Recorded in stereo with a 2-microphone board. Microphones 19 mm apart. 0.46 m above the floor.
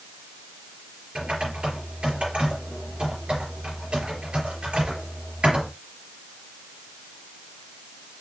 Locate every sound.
1.1 s typing on a keyboard: 65° right (ahead or behind), 4 m